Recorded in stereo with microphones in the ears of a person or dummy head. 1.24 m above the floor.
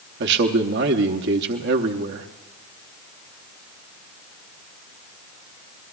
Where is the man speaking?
60° right (ahead or behind), 0.8 m.